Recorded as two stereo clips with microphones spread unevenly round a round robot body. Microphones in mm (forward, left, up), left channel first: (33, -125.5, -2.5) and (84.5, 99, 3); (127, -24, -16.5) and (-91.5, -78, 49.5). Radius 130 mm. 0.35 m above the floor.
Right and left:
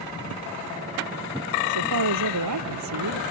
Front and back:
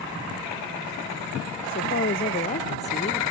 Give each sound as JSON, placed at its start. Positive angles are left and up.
{"t": 1.6, "sound": "a woman speaking", "azimuth_deg": 70}